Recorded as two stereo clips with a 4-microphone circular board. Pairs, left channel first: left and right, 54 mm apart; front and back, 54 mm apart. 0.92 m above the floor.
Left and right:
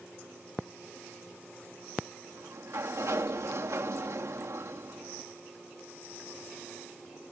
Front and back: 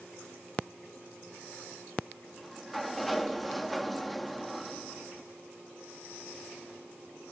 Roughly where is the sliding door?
Right.